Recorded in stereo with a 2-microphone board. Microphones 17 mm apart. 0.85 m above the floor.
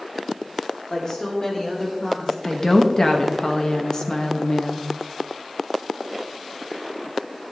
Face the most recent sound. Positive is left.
turn(degrees=40)  # may be behind; listen again after turning